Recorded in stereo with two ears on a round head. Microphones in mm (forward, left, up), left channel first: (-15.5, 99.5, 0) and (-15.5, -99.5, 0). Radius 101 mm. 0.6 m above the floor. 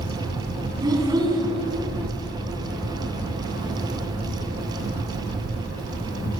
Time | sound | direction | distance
0.8 | a child speaking | 20° right (ahead or behind) | 4.5 m